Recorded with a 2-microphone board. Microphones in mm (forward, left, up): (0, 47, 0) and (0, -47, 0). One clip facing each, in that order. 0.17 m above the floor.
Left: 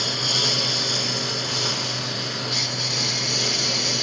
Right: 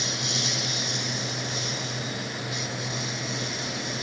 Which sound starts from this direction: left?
A lawn mower, at 0.0 s.